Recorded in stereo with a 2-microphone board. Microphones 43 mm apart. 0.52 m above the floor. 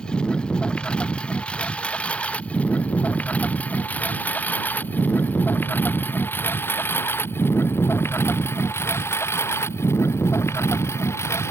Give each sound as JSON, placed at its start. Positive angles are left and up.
{"t": 0.0, "sound": "a lawn mower", "side_deg": 20}